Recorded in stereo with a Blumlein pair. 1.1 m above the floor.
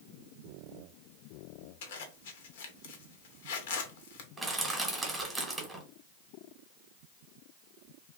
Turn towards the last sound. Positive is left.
turn(degrees=-10)